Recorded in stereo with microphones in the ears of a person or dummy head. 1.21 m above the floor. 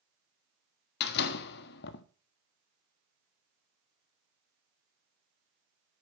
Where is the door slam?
65° left (ahead or behind), 1.4 m.